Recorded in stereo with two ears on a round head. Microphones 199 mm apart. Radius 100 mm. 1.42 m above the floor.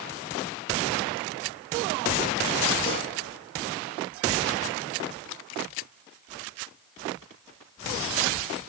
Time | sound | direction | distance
2.9 | a gunshot | 25° left (ahead or behind) | 2 m